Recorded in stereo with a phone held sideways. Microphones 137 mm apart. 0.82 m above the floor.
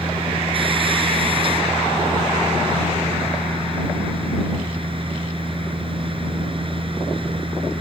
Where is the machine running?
40° right (ahead or behind).